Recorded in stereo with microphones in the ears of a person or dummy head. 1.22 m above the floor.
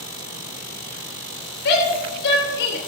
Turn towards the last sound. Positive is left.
turn(degrees=55)  # may be behind; listen again after turning